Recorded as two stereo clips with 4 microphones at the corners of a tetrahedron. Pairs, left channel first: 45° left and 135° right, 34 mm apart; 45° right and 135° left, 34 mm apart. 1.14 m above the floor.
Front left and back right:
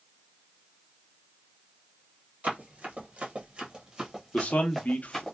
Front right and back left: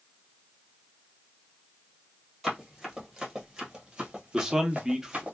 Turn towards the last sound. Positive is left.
turn(degrees=65)